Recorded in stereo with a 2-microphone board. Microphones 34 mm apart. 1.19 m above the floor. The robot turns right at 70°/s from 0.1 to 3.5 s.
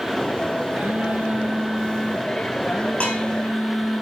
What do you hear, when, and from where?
0.7 s a phone buzzing: 90° right, 5 m; by 4.0 s 105° left, 5 m
3.0 s dishes clattering: 40° left (ahead or behind), 8 m; by 3.2 s 55° left (ahead or behind), 8 m